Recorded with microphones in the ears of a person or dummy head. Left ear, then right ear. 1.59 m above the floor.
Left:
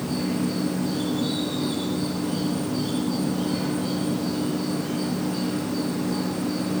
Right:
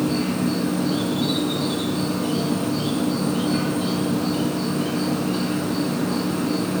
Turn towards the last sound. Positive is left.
turn(degrees=-35)  # may be behind; listen again after turning